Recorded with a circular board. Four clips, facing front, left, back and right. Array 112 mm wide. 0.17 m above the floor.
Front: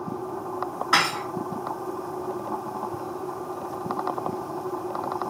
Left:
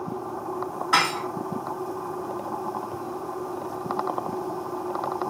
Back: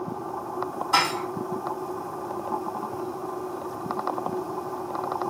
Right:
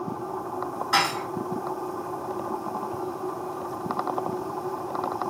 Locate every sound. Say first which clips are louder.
0.9 s dishes clattering: left 2 dB, even; 10° left, 1.5 m